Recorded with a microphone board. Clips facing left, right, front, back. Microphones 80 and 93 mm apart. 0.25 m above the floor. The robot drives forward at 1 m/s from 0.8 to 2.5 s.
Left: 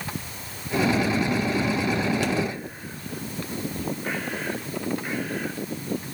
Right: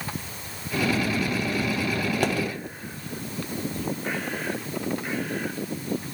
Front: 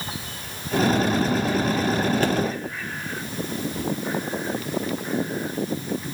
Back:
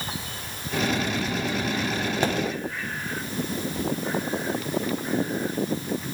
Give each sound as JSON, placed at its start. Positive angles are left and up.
{"t": 2.2, "sound": "a pop", "azimuth_deg": -115, "distance_m": 1.2}